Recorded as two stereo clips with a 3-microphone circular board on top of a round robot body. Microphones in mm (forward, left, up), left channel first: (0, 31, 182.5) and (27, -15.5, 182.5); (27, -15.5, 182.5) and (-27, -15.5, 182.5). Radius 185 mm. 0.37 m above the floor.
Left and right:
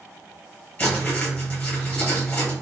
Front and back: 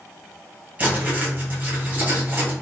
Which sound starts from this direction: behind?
Writing, at 0.8 s.